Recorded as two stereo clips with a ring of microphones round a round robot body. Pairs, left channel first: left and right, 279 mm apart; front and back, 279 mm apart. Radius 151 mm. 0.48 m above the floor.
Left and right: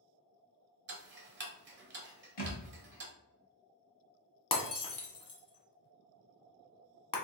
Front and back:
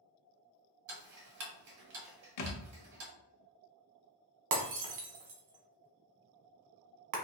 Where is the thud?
25° left, 0.8 m.